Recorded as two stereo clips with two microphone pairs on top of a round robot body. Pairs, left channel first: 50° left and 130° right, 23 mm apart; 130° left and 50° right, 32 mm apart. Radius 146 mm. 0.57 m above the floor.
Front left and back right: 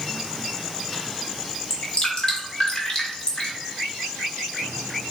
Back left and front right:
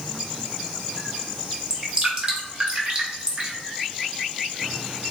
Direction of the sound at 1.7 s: 5° left.